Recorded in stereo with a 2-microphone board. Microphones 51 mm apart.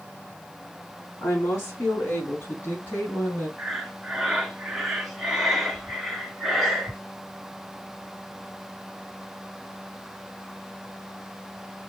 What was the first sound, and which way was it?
A woman speaking, 60° left (ahead or behind).